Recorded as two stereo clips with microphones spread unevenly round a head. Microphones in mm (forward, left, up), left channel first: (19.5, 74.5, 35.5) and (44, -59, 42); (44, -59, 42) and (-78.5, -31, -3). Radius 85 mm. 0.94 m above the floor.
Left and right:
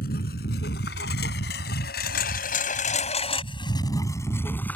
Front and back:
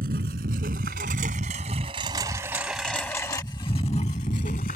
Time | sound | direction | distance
0.0 | a lawn mower | 130° left | ?